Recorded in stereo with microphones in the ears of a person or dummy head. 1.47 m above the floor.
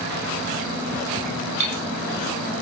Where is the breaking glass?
40° right (ahead or behind), 2.5 m.